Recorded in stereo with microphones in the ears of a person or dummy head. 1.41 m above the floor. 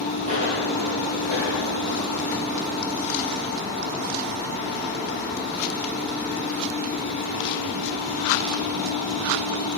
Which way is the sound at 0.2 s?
30° right (ahead or behind).